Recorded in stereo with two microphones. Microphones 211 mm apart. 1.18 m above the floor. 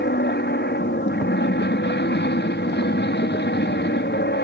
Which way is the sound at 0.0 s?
55° left (ahead or behind).